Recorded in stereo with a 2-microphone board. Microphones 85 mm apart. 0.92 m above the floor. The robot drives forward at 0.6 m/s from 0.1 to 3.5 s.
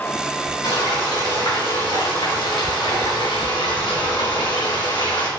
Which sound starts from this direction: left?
Frying, at 0.6 s.